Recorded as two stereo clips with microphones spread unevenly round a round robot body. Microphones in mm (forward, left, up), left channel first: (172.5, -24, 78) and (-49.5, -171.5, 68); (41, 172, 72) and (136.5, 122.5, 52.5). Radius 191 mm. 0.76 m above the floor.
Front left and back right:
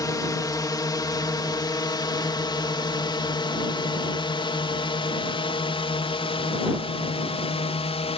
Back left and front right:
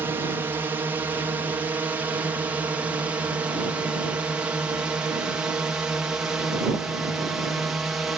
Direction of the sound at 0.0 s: 35° right.